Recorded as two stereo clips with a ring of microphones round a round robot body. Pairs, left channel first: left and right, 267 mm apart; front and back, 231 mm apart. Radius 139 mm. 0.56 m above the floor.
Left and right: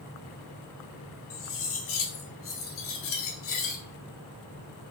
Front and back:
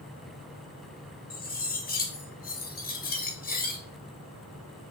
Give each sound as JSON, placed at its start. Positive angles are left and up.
{"t": 1.3, "sound": "cutlery clinking", "azimuth_deg": 50, "distance_m": 0.9}